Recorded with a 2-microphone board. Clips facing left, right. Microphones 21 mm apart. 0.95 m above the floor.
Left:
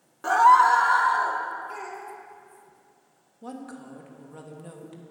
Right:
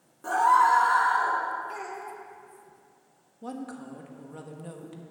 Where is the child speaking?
5° right (ahead or behind), 2 m.